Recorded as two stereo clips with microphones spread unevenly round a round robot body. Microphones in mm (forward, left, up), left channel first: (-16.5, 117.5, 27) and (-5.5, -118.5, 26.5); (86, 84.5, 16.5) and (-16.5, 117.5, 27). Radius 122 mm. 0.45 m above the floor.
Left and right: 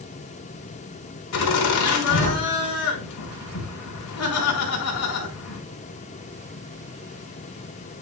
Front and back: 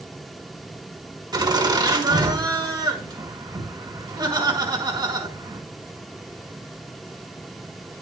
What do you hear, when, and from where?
1.3 s laughter: 110° left, 4 m